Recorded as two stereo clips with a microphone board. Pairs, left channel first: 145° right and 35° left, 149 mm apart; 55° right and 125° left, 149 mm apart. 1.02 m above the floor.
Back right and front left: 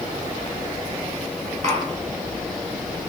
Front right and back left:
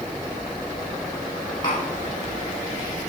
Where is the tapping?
Straight ahead, 10 m.